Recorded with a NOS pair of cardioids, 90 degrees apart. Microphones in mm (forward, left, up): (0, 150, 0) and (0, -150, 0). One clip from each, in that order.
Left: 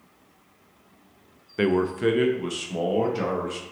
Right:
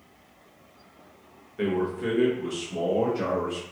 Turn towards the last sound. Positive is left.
turn(degrees=55)